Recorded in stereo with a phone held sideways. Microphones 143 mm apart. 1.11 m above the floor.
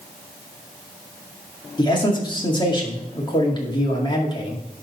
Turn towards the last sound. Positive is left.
turn(degrees=35)  # may be behind; listen again after turning